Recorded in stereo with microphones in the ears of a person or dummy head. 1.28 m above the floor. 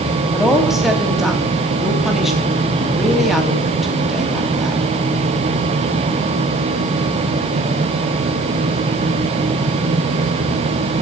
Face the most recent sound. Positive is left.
turn(degrees=0)  # may be behind; listen again after turning